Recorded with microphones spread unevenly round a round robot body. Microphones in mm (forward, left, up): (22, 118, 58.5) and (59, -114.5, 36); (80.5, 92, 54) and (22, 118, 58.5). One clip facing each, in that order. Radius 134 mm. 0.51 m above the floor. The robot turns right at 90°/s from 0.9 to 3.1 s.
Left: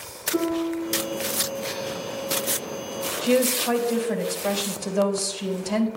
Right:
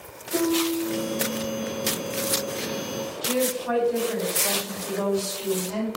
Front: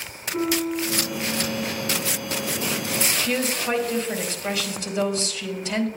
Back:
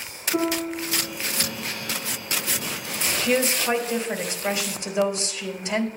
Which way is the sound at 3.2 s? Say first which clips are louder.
Left 5 dB, back 7 dB; 85° left.